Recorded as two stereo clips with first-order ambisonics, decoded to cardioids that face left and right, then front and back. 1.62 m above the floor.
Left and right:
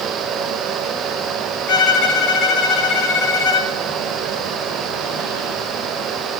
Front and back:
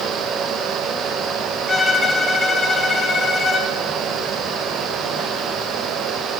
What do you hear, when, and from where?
1.7 s a violin: 75° left, 1.0 m